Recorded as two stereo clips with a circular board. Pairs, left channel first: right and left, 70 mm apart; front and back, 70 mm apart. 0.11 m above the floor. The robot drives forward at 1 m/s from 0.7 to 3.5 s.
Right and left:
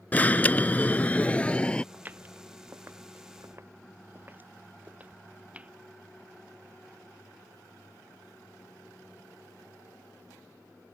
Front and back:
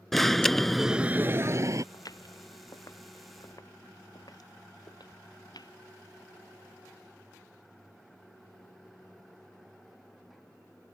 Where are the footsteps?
25° left; by 5.7 s 20° left.